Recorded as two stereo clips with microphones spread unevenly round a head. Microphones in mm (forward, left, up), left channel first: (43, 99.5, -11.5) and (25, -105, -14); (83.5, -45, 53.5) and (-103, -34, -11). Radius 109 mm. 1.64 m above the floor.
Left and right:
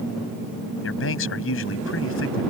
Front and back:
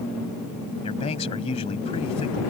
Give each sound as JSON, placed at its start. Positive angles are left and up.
{"t": 0.8, "sound": "a man speaking", "azimuth_deg": 60}